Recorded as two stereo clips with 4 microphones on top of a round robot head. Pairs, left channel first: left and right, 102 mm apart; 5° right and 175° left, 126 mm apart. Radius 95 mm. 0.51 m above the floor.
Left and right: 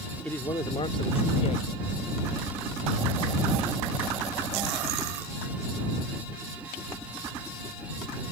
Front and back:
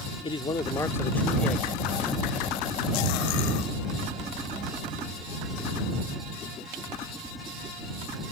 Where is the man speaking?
15° left; by 3.7 s 90° left.